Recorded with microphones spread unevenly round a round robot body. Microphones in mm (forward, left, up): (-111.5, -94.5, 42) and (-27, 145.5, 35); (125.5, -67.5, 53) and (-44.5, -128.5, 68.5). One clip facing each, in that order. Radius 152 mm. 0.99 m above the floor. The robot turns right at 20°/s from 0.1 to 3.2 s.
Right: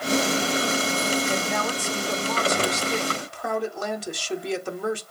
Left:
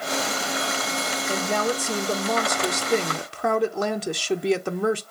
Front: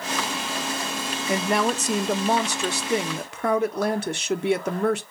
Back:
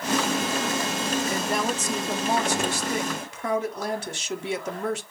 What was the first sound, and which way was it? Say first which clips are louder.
A woman speaking: left 2 dB, front 3 dB; 5° left.